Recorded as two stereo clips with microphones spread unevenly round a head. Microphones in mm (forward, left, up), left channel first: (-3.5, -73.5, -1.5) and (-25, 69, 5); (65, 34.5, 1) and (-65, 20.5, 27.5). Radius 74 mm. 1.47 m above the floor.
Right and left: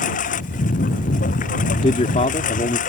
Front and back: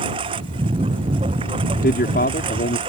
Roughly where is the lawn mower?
Behind right.